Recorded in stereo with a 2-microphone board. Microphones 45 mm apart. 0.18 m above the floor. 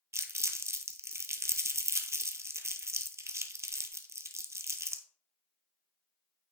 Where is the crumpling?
75° right (ahead or behind), 0.6 m.